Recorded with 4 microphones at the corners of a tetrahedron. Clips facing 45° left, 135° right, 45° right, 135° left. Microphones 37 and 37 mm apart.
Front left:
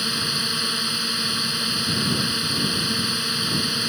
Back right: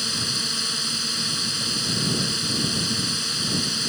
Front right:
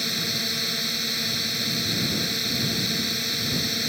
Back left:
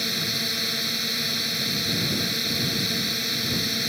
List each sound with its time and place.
0.0 s a drone: 55° left